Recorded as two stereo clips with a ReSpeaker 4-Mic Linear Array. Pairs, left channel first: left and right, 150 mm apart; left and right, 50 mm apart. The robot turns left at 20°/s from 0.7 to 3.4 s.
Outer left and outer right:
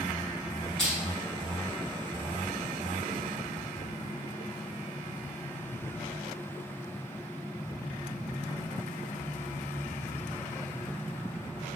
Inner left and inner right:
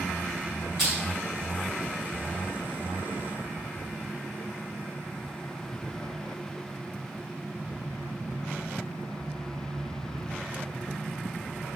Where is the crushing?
5° left (ahead or behind), 2.0 m; by 1.0 s 10° left (ahead or behind), 2.0 m.